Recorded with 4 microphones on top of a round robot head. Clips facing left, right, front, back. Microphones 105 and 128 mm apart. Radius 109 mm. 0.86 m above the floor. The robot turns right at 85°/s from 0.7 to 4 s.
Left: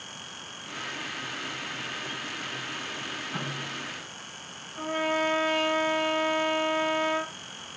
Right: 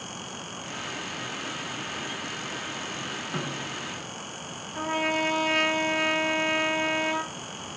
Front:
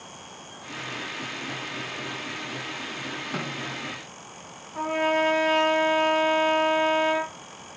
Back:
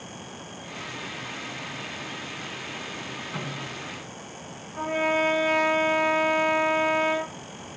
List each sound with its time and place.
3.3 s a snare drum: 40° right, 1.5 m; by 3.8 s straight ahead, 1.5 m
4.8 s a trumpet: 70° right, 0.8 m